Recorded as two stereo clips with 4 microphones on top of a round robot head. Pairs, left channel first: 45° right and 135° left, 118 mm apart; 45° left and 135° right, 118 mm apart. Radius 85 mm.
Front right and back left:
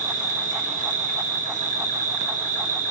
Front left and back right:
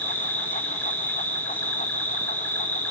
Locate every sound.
0.0 s an insect: 120° left, 1.4 m